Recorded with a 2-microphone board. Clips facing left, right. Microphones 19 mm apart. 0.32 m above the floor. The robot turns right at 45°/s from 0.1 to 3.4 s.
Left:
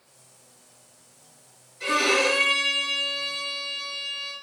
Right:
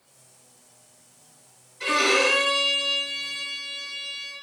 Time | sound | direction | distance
1.8 | a violin | 160° right | 0.8 m